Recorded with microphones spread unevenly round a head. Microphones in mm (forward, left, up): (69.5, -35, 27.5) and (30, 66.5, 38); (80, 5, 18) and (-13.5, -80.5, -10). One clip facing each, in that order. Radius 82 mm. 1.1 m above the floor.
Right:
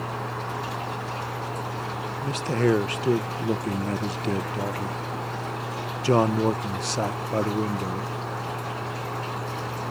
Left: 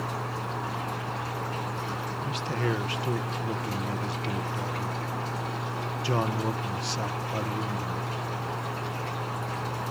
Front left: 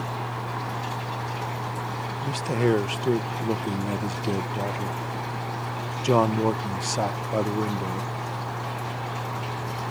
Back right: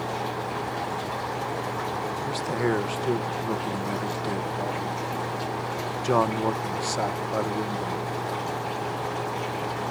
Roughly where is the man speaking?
Ahead right.